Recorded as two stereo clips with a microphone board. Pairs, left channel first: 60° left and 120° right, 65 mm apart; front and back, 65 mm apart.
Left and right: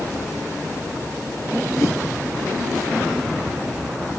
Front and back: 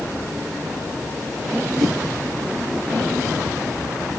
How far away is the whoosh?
About 1.3 m.